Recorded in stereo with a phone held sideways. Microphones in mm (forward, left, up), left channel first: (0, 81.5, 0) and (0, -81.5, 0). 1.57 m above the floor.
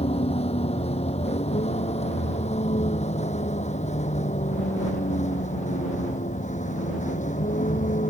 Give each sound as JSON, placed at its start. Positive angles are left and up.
{"t": 0.0, "sound": "a vehicle", "side_deg": 40}